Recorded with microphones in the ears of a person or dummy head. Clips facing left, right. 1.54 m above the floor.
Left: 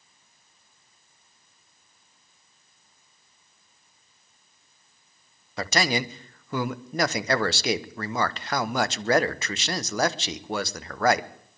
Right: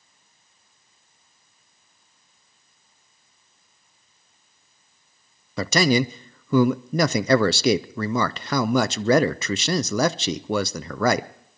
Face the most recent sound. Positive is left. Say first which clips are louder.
# right 6 dB
turn(degrees=-85)